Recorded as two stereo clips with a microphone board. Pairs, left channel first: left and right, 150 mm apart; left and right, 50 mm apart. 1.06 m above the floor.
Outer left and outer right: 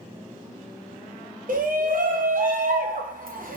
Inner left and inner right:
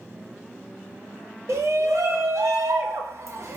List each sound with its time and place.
1.5 s a shout: 70° right (ahead or behind), 0.9 m